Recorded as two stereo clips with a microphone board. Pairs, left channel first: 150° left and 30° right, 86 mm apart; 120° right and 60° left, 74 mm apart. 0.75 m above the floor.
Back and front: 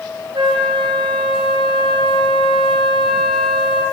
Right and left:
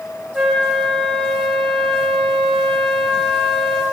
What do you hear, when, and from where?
0.3 s a flute: 20° right, 9 m